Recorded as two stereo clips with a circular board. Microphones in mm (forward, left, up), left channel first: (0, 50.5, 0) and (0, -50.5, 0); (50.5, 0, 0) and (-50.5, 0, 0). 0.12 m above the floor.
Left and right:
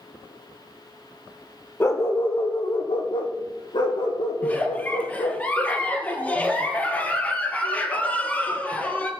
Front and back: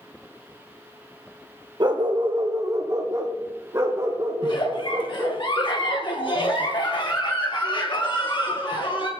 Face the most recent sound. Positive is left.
turn(degrees=20)